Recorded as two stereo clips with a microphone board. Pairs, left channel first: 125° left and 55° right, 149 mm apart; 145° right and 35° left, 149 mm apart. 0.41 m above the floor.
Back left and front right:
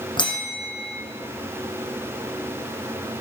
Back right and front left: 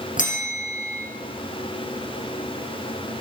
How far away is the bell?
About 5 m.